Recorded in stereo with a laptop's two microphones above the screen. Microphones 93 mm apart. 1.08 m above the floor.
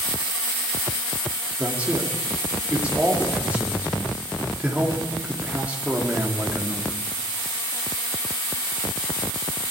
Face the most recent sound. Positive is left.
turn(degrees=-15)  # may be behind; listen again after turning